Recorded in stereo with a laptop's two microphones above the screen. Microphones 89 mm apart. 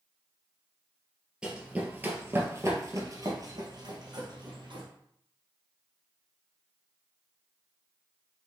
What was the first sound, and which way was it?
Running footsteps, 10° right (ahead or behind).